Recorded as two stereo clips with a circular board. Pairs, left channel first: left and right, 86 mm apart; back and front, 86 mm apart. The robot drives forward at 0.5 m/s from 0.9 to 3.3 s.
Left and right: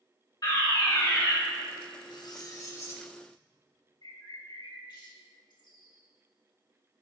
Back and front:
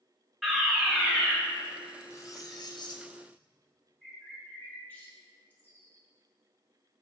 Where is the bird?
110° left, 1.8 m.